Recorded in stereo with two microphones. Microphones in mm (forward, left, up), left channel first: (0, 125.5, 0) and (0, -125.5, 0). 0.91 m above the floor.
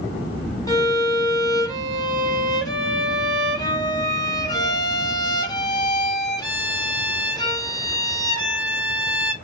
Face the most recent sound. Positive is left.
turn(degrees=15)  # may be behind; listen again after turning